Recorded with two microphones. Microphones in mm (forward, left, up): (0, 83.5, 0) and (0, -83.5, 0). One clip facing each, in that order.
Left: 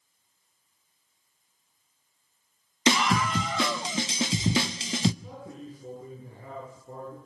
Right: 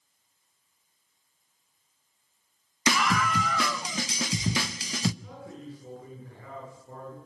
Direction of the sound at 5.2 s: 20° left (ahead or behind).